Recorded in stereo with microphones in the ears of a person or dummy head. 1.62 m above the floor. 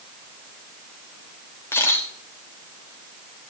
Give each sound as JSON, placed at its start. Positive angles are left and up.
{"t": 1.7, "sound": "a camera shutter", "side_deg": 15, "distance_m": 2.5}